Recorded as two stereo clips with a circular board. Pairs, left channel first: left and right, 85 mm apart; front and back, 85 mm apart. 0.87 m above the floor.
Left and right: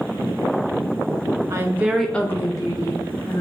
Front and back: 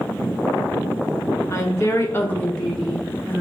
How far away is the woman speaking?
About 0.7 m.